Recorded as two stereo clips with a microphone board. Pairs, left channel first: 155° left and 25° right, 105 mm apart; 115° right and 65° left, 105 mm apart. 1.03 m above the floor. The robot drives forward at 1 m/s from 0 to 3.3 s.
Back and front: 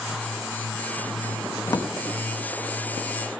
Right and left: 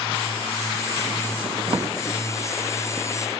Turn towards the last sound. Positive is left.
turn(degrees=160)